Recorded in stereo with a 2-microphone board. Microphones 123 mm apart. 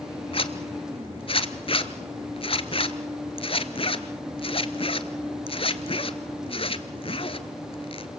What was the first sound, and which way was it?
A zipper, 50° left (ahead or behind).